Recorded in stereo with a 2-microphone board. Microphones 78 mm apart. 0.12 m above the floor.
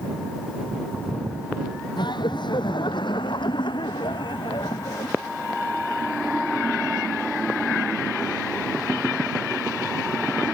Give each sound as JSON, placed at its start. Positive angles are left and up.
{"t": 2.0, "sound": "laughter", "side_deg": 75}